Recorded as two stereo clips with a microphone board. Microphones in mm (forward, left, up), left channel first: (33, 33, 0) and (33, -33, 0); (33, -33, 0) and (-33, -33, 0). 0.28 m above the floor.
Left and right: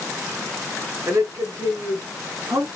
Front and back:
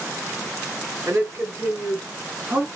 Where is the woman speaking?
130° right, 3 m; by 2.7 s 110° right, 3 m.